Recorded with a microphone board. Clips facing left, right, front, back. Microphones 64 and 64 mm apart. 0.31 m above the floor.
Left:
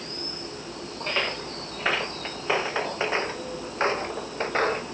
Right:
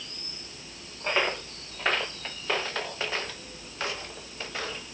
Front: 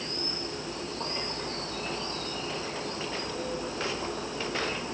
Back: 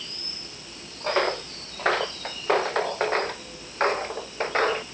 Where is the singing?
No singing in this recording.